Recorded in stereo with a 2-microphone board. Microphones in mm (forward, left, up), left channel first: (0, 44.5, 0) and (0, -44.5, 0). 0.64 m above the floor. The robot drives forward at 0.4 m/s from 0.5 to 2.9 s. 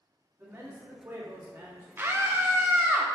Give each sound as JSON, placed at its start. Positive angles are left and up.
{"t": 0.4, "sound": "a man speaking", "side_deg": -30, "distance_m": 1.5}
{"t": 2.0, "sound": "a scream", "side_deg": -25, "distance_m": 0.5}